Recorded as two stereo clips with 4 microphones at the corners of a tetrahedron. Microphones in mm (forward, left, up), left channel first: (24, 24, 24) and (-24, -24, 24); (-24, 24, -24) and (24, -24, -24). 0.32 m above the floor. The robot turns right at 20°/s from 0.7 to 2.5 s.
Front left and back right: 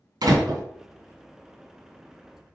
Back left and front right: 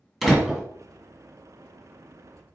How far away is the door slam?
About 2.5 m.